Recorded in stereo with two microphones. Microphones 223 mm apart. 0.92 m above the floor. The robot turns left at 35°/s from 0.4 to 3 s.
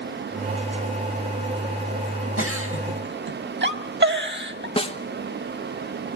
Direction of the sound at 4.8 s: 25° left (ahead or behind).